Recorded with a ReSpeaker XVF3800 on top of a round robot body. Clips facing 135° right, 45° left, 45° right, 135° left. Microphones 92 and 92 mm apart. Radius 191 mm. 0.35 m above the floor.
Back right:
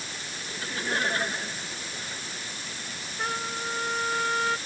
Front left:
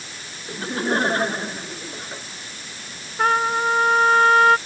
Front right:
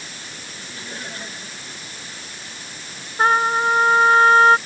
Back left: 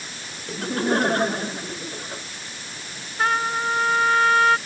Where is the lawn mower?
I don't hear a lawn mower.